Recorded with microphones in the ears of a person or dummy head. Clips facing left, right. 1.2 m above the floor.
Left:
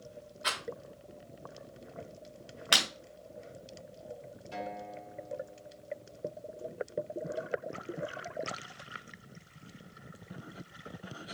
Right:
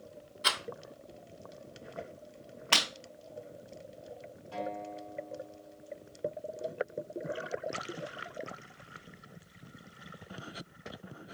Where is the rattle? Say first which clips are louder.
Right 3 dB; 40° right (ahead or behind), 1.5 m.